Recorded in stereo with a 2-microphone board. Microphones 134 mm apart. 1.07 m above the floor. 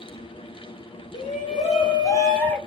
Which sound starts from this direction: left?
A shout, at 1.1 s.